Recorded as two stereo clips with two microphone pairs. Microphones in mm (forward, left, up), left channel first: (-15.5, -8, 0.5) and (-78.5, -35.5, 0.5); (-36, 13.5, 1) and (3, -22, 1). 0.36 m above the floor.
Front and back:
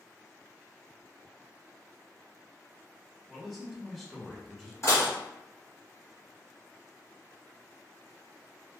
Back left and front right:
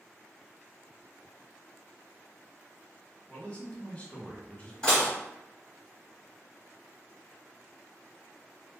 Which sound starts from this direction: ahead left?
Dishes clattering, at 4.8 s.